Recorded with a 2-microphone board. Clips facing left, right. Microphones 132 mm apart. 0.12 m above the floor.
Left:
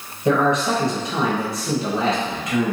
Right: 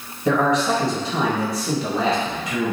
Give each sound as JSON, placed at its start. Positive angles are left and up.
{"t": 0.2, "sound": "a man speaking", "side_deg": 25, "distance_m": 1.3}